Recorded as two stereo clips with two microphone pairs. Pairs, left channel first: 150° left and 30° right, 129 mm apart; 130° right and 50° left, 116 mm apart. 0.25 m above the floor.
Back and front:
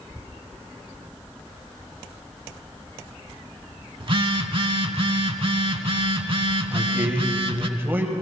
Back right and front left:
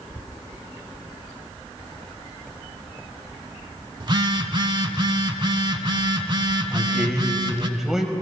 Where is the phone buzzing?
5° left, 0.6 m.